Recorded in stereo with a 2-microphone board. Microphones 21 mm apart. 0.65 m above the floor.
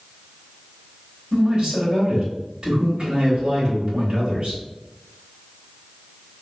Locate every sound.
1.3 s a man speaking: 50° right (ahead or behind), 1.4 m